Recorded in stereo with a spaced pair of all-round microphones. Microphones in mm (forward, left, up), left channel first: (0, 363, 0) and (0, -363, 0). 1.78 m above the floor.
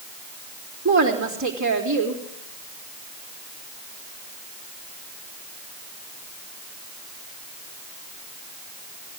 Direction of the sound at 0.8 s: 25° right (ahead or behind).